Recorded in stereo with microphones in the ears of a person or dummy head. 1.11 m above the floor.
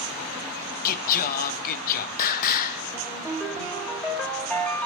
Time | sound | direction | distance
0.8 | singing | 45° left (ahead or behind) | 0.6 m
2.9 | a ringtone | 5° left (ahead or behind) | 1.7 m